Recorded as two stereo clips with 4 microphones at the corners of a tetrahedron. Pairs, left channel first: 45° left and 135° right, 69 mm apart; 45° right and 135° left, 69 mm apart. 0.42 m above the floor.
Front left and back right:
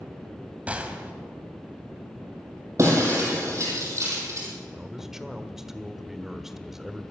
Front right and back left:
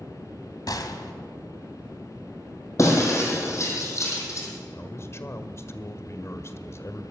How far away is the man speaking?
About 1.4 m.